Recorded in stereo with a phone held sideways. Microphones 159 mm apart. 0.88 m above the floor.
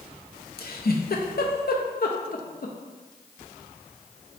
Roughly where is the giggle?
Left.